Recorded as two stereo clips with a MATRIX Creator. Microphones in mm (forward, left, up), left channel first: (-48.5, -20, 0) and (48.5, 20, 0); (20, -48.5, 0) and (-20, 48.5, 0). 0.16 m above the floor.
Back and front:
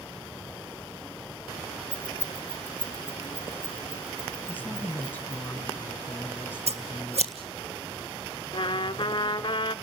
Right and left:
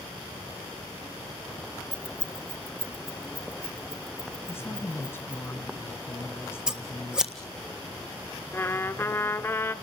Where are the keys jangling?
95° left, 1.5 m; by 5.5 s 90° left, 5.5 m.